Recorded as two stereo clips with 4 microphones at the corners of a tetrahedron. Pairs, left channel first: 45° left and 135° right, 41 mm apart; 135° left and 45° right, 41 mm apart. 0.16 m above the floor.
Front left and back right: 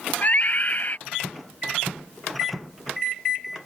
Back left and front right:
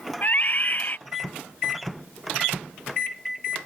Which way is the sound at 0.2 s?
95° left.